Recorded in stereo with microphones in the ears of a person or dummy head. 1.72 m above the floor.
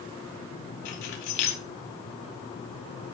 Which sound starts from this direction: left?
Keys jangling, at 0.8 s.